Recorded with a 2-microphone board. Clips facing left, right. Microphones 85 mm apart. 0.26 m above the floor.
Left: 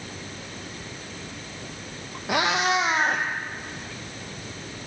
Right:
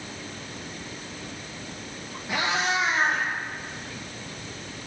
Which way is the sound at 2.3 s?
75° left (ahead or behind).